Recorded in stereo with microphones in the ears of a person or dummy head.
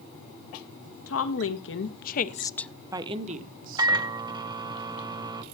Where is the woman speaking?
70° left (ahead or behind), 1.8 m; by 3.9 s 50° right (ahead or behind), 1.5 m.